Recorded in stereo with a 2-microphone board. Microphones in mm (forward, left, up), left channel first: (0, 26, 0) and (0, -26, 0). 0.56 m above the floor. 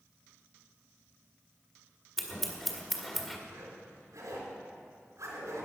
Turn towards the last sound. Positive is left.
turn(degrees=-85)